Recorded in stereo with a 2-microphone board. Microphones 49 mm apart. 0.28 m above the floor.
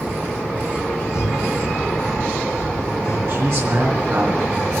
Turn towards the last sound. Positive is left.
turn(degrees=-55)  # may be behind; listen again after turning